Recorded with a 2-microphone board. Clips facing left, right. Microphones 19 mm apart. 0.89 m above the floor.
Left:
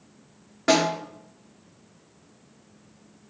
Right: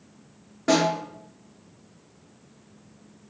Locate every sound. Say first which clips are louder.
0.7 s a snare drum: even; 25° left (ahead or behind), 2 m